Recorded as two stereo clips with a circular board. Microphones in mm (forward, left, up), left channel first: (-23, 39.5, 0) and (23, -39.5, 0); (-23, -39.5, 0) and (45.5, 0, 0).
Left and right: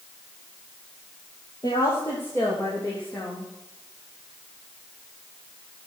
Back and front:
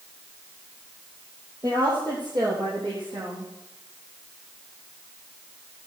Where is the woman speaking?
70° left, 3 m; by 3.5 s 40° left, 5 m.